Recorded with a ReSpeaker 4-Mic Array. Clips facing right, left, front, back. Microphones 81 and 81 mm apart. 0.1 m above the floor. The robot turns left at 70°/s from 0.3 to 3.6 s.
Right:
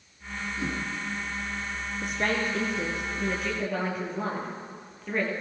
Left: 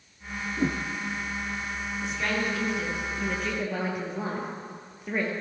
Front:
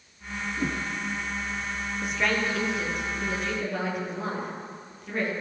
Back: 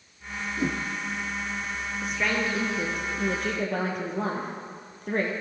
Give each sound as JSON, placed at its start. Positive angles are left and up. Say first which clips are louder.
{"t": 0.6, "sound": "a whoosh", "louder": "left 6 dB, back 2 dB", "azimuth_deg": 110, "distance_m": 1.3}
{"t": 2.0, "sound": "a woman speaking", "louder": "right 1 dB, front 1 dB", "azimuth_deg": -80, "distance_m": 2.5}